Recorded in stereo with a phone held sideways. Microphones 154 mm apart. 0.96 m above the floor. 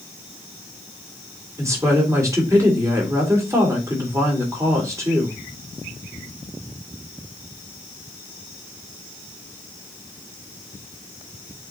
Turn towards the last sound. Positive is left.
turn(degrees=-20)  # may be behind; listen again after turning